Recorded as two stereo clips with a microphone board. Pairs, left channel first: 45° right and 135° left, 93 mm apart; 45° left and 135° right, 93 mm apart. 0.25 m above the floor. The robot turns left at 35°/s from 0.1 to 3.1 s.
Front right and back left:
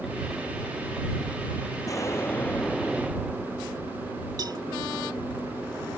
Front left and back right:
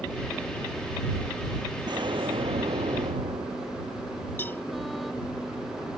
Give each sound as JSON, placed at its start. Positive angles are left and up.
{"t": 1.9, "sound": "an explosion", "azimuth_deg": -95}
{"t": 4.4, "sound": "a cowbell", "azimuth_deg": 110}